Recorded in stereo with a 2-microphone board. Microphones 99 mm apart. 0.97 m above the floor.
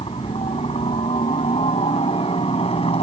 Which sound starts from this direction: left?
A helicopter, at 0.0 s.